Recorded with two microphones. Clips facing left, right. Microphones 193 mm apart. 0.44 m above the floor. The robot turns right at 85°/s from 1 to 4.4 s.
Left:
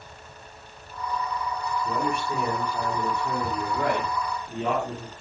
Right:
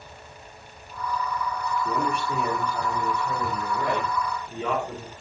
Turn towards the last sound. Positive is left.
turn(degrees=155)